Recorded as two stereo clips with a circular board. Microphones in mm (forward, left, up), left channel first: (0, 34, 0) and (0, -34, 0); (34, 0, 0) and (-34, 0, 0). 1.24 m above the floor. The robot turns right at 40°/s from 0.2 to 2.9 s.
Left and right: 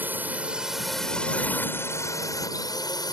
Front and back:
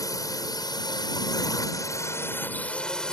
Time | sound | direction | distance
0.0 | a drone | 30° right | ?